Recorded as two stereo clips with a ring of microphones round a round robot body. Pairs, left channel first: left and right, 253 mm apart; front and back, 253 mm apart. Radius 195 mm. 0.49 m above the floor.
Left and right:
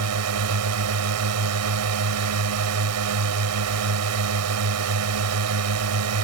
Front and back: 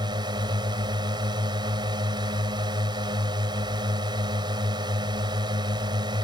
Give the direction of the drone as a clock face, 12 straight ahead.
3 o'clock.